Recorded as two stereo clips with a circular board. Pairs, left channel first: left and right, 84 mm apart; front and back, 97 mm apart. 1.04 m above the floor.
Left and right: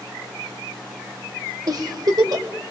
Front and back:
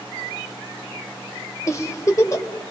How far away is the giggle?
About 2.5 m.